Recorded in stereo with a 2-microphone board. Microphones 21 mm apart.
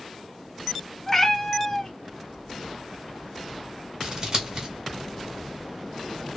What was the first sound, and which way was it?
A cat meowing, 20° left (ahead or behind).